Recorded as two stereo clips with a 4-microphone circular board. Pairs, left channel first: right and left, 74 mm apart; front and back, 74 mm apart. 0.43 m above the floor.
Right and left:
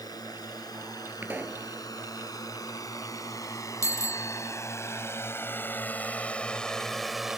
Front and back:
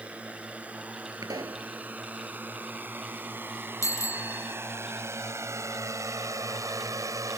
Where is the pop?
150° left.